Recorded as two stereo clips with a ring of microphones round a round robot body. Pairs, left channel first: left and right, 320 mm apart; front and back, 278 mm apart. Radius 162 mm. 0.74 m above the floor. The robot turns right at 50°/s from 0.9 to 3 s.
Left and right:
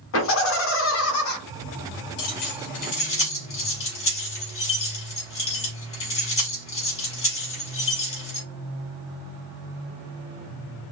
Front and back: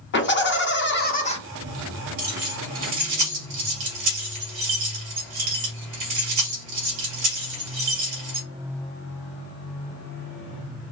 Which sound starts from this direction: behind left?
Keys jangling, at 2.2 s.